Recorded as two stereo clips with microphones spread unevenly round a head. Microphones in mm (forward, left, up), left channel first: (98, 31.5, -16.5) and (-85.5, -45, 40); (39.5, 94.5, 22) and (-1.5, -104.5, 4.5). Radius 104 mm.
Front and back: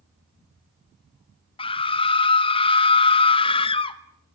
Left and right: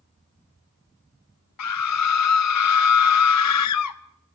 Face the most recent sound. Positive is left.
turn(degrees=90)